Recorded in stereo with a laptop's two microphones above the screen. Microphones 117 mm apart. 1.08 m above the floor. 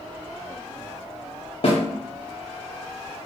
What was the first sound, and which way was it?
A snare drum, 55° left (ahead or behind).